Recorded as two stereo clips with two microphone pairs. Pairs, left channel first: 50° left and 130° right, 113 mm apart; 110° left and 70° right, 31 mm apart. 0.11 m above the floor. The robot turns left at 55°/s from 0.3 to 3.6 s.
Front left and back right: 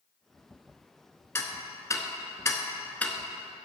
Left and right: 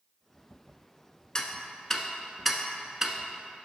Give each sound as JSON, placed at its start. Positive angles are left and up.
{"t": 1.4, "sound": "ticking", "azimuth_deg": 85, "distance_m": 0.6}